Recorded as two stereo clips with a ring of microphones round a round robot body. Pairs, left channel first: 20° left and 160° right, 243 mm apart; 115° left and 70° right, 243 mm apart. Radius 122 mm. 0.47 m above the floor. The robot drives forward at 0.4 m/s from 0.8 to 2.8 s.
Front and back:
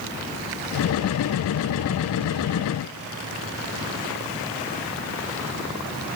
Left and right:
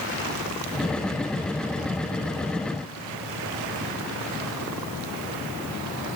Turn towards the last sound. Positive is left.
No sound to turn to.